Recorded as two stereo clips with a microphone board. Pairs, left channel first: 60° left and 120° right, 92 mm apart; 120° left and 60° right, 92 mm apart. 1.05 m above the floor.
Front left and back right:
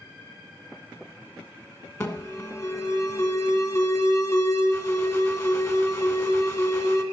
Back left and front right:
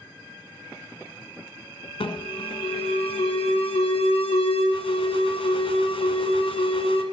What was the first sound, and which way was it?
An alarm, 120° left.